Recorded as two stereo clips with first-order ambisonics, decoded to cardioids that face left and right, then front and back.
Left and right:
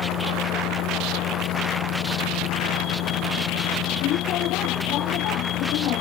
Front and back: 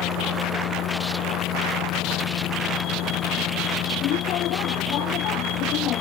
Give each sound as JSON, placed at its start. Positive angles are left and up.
{"t": 0.0, "sound": "a vehicle", "azimuth_deg": 45}